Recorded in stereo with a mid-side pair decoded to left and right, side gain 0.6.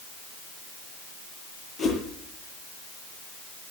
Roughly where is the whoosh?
Ahead left.